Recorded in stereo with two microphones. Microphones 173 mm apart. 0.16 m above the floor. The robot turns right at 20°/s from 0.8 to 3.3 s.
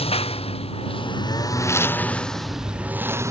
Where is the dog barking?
No dog barking in this recording.